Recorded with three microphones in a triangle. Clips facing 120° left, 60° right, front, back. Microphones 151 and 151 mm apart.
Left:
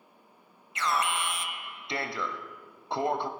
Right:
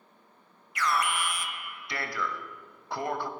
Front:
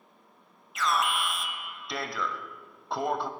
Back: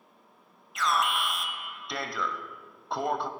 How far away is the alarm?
About 0.9 m.